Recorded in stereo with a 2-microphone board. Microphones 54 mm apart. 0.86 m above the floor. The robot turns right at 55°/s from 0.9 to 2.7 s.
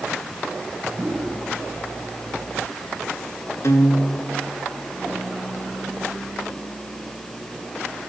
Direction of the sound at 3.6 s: 65° left (ahead or behind).